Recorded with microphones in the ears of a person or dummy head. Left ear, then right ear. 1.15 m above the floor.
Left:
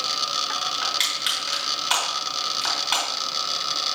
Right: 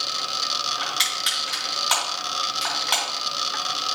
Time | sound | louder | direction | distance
0.8 | crushing | left 1 dB | 10° right (ahead or behind) | 3.5 m